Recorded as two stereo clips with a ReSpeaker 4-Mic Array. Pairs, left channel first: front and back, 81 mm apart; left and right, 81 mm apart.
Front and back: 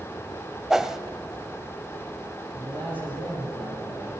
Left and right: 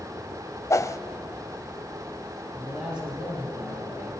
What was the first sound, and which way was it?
A whoosh, 100° left.